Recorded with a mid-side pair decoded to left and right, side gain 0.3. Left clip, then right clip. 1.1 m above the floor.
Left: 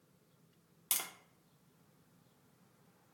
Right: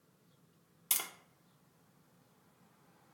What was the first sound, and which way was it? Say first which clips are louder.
Tapping: right 2 dB; 30° right.